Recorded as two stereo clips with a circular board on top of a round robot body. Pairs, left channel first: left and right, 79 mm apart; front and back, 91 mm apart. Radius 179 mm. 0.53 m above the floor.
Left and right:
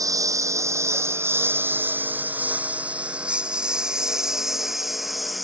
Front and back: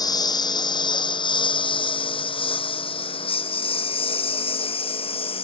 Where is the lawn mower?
45° right; by 5.5 s straight ahead.